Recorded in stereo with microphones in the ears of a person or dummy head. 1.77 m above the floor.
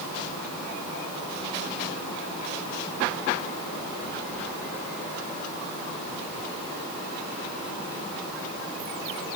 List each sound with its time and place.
Only background noise.